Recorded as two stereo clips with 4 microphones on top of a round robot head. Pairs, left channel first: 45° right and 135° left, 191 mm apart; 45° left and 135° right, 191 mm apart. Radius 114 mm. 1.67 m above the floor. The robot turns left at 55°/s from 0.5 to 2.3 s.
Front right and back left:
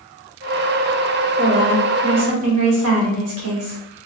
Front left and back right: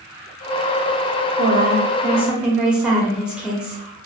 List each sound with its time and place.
1.4 s a woman speaking: 165° right, 1.1 m; by 3.8 s 140° left, 1.1 m